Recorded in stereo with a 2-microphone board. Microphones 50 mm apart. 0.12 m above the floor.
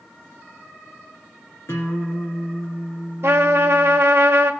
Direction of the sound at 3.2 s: 65° right (ahead or behind).